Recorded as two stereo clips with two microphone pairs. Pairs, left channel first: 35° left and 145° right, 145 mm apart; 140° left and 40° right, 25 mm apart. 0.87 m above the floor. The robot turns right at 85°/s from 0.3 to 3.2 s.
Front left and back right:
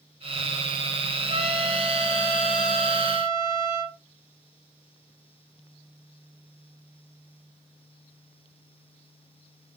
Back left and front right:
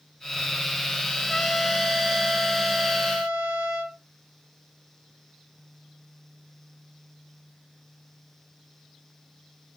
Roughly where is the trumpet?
Behind.